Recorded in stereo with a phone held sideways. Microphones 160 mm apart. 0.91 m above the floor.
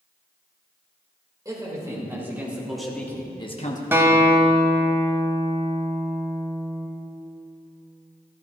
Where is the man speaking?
20° right (ahead or behind), 3 m; by 3.8 s 50° left (ahead or behind), 1.1 m.